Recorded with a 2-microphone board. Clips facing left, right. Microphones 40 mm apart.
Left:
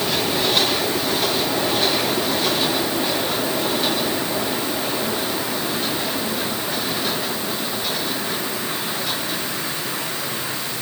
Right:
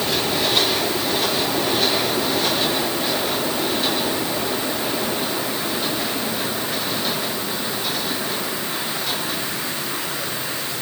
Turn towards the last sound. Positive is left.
No sound to turn to.